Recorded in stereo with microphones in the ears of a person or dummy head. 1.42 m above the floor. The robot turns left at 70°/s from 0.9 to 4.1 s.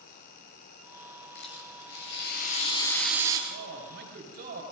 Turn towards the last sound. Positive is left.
turn(degrees=-135)